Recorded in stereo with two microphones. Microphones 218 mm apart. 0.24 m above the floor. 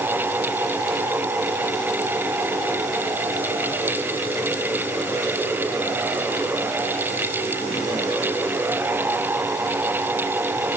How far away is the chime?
I don't hear a chime.